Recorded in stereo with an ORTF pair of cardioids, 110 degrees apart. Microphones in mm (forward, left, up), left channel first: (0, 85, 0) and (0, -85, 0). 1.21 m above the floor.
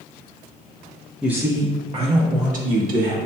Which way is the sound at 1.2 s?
5° right.